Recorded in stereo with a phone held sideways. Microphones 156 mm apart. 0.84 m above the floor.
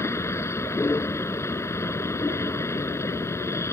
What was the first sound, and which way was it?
A vehicle, 20° left (ahead or behind).